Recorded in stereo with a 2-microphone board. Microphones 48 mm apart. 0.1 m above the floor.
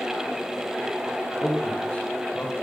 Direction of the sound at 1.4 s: 35° left (ahead or behind).